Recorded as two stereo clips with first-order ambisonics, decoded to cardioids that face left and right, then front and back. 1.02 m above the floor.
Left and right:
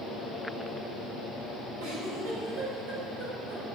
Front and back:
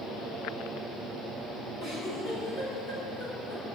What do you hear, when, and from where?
1.8 s a giggle: 85° right, 6 m